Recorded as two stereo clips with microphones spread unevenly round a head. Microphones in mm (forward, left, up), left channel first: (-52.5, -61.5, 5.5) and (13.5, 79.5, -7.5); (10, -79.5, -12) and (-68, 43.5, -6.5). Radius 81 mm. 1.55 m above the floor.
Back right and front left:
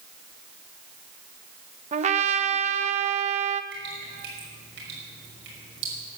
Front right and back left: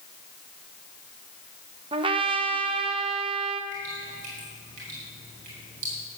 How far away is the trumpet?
About 0.8 m.